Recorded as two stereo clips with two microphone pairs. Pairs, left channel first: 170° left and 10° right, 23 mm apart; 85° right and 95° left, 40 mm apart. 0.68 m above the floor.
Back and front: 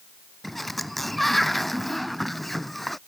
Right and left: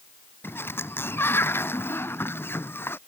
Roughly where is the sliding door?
Right.